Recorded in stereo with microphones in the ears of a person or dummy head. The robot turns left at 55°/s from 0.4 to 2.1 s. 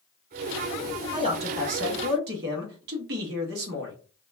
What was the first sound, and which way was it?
A man speaking, 30° right.